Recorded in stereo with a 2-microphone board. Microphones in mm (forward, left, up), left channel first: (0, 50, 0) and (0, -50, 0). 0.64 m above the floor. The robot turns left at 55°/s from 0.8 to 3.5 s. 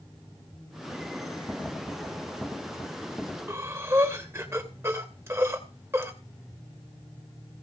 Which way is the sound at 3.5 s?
30° right (ahead or behind).